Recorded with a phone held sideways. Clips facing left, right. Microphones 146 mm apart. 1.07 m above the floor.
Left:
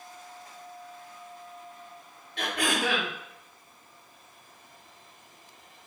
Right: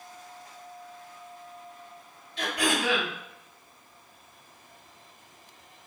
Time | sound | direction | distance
2.4 | throat clearing | 60° left (ahead or behind) | 0.9 m